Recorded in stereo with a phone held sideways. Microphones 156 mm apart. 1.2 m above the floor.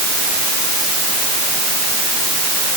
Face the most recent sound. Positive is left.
No sound to turn to.